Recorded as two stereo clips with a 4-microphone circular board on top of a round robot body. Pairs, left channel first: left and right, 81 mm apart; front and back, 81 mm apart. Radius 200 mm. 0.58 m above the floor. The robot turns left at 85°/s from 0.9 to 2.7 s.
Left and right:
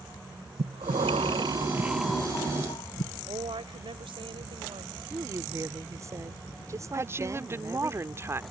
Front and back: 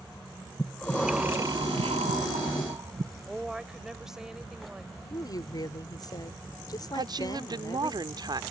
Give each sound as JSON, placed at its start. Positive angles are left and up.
{"t": 0.6, "sound": "breathing", "azimuth_deg": -80}
{"t": 3.3, "sound": "a woman speaking", "azimuth_deg": -95}
{"t": 5.1, "sound": "a woman speaking", "azimuth_deg": -40}
{"t": 6.9, "sound": "a woman speaking", "azimuth_deg": -150}